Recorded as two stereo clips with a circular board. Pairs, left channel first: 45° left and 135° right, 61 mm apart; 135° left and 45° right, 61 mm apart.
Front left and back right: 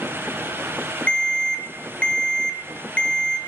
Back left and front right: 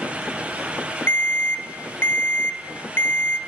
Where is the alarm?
110° left, 1.0 m.